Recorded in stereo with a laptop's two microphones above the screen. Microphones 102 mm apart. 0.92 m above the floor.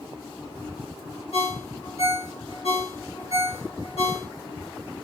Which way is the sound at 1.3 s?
85° left.